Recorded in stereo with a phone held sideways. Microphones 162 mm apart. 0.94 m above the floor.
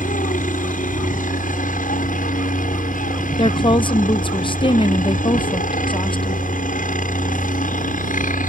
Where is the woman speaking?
30° left (ahead or behind).